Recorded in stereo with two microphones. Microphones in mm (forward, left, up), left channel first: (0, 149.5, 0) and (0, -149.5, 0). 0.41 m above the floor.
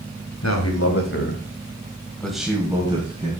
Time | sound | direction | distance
0.4 | a man speaking | 65° left (ahead or behind) | 1.9 m